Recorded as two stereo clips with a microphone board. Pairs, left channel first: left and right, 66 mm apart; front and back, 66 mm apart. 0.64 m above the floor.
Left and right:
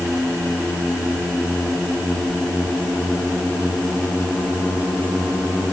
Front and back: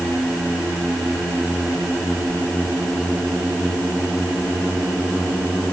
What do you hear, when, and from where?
Only background noise.